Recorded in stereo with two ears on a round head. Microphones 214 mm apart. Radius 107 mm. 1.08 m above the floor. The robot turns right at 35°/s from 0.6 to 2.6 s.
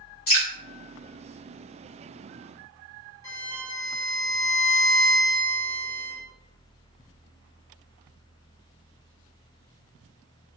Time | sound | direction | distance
0.3 | dripping | 60° left (ahead or behind) | 1.4 m
3.2 | a violin | 15° left (ahead or behind) | 1.4 m